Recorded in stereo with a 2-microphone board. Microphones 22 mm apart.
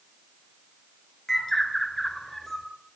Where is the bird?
15° left (ahead or behind), 3 m.